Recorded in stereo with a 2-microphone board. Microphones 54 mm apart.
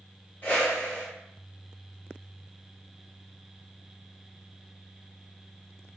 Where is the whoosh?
40° left (ahead or behind), 1.0 m.